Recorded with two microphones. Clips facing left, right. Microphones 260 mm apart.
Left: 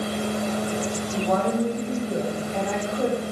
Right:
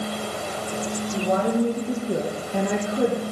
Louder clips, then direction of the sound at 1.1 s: Right 1 dB; 25° right (ahead or behind).